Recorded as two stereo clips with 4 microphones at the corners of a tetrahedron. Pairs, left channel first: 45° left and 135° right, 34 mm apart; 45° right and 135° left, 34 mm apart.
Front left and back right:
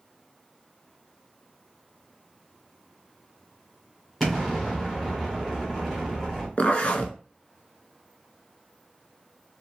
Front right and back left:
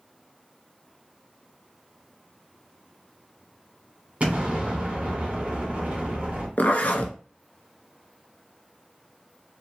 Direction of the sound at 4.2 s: 120° left.